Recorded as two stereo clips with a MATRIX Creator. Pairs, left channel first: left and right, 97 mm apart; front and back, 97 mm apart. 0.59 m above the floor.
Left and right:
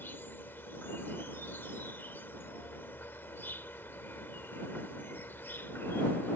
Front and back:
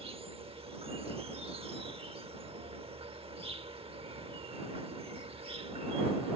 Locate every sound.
0.0 s an insect: 160° left